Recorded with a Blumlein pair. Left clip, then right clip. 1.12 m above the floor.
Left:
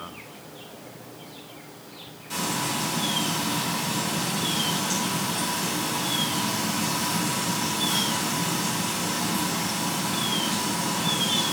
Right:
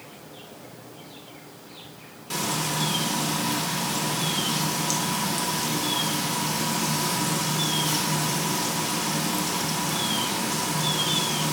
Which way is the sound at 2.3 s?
20° right.